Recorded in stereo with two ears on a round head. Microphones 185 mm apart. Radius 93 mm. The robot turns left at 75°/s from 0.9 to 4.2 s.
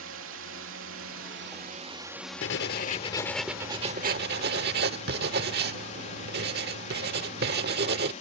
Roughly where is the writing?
Left.